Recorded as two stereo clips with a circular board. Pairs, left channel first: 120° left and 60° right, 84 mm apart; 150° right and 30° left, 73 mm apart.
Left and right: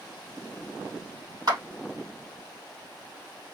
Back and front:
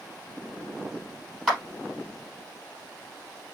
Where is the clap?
70° right, 1.9 m.